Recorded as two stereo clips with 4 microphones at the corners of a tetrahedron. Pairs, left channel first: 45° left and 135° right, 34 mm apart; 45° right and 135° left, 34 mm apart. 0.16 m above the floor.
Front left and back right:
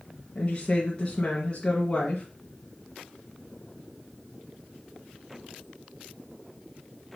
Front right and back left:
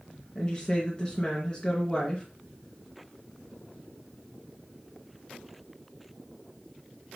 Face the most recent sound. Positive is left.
turn(degrees=0)